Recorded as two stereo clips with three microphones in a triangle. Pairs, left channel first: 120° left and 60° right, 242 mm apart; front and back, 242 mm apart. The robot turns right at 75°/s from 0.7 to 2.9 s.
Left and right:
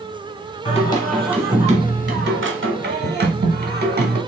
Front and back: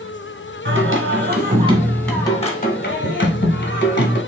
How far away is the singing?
About 1.2 m.